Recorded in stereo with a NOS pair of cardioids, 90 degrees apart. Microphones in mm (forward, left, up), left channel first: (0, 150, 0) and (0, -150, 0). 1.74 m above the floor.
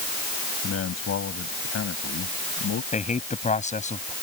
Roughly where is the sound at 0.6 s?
Ahead left.